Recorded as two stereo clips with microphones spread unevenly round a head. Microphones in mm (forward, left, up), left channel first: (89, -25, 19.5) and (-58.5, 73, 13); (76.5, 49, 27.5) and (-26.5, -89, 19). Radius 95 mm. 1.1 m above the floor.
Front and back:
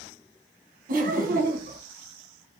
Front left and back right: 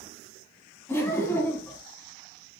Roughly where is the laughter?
Behind left.